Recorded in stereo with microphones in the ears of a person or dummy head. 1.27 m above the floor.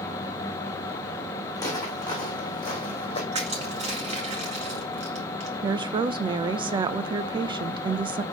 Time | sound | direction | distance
1.6 | footsteps | 15° left (ahead or behind) | 4 m
3.3 | crushing | 35° right (ahead or behind) | 1.9 m
5.6 | a woman speaking | 25° right (ahead or behind) | 0.6 m